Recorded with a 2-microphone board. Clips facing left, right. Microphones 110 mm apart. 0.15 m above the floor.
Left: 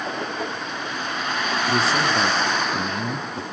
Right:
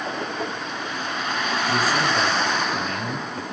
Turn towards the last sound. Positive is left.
turn(degrees=30)  # may be behind; listen again after turning